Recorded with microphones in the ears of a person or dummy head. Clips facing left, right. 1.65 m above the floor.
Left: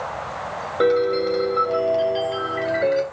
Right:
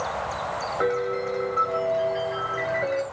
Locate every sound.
0.8 s a piano: 55° left (ahead or behind), 3 m